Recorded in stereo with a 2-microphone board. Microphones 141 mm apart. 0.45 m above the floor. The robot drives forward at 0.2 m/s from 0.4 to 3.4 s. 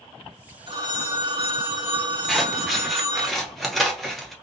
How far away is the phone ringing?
About 2.5 m.